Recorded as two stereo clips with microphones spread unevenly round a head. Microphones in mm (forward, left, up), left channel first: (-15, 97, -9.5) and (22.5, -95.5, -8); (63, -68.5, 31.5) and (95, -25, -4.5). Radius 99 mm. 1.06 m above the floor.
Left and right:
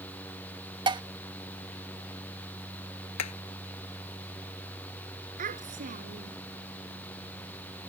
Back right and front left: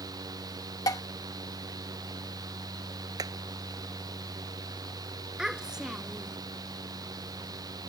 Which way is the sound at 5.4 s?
25° right.